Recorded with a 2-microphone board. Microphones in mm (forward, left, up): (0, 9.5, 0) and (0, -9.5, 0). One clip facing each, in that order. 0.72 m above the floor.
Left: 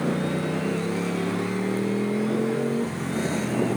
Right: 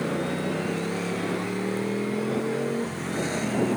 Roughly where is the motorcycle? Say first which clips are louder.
Left 2 dB; centre.